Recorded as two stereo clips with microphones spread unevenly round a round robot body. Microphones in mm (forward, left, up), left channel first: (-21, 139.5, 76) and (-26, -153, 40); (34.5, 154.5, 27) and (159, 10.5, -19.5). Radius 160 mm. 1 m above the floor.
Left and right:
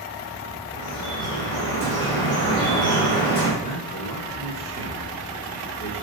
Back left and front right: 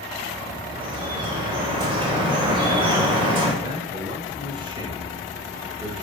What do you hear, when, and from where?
0.7 s dripping: 15° left, 4 m
3.6 s a man speaking: 20° left, 3.5 m